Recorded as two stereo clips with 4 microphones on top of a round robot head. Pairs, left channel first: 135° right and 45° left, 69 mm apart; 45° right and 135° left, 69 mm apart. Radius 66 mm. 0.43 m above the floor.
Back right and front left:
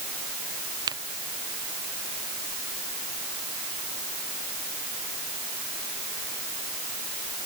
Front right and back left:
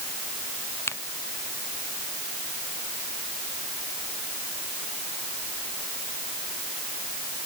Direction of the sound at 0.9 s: 15° left.